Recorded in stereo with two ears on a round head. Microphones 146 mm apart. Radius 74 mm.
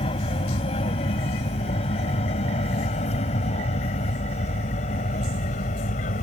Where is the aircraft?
35° left (ahead or behind); by 6.2 s 45° left (ahead or behind).